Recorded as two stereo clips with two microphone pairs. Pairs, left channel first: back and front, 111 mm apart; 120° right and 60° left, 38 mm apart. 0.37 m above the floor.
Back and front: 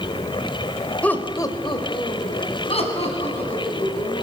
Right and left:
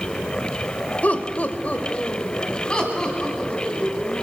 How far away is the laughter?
About 1.4 m.